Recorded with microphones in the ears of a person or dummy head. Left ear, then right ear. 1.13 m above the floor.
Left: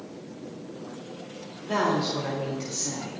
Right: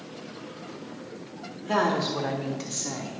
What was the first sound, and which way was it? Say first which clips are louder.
A woman speaking: right 1 dB; 25° right (ahead or behind).